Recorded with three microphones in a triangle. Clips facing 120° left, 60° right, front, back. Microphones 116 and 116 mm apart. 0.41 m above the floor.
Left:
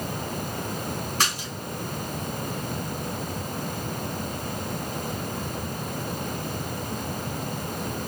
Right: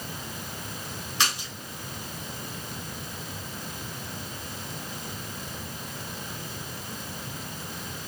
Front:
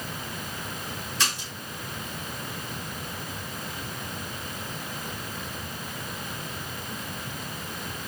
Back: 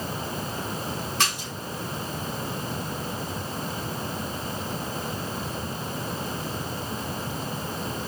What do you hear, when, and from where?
1.2 s a splash: 160° left, 3 m